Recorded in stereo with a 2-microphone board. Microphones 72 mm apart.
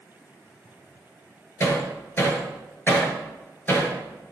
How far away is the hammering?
About 6 m.